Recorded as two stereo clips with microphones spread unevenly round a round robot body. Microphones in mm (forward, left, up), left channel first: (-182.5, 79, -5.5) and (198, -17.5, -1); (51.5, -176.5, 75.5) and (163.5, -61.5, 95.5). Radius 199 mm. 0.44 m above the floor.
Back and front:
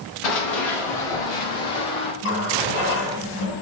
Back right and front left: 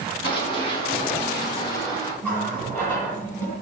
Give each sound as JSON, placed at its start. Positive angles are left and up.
{"t": 0.2, "sound": "running footsteps", "azimuth_deg": 175, "distance_m": 6.0}
{"t": 2.2, "sound": "a running tap", "azimuth_deg": 140, "distance_m": 6.0}